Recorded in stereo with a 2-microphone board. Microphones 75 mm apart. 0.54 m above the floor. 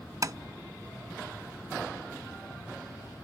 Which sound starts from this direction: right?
Tapping, at 0.2 s.